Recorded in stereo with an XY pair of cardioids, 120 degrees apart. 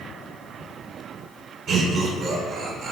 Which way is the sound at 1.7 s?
70° right.